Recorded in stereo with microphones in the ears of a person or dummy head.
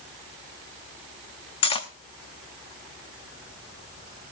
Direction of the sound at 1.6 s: 30° left (ahead or behind).